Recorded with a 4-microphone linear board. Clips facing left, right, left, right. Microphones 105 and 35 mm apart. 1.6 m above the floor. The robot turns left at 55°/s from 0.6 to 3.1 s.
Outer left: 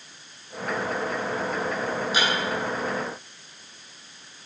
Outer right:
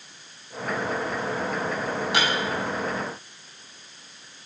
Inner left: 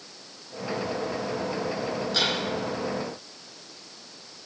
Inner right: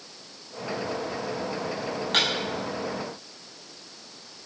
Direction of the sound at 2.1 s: 65° right (ahead or behind).